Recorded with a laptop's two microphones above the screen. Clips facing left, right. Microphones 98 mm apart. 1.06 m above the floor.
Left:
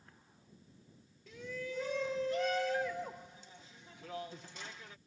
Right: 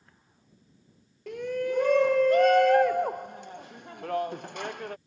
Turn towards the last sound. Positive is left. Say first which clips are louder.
# right 13 dB
turn(degrees=-60)  # may be behind; listen again after turning